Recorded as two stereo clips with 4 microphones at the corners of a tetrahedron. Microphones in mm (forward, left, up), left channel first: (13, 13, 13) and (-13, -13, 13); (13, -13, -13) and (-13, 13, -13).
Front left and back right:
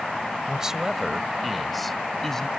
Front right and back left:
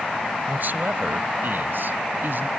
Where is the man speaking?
155° left; by 2.5 s 120° left.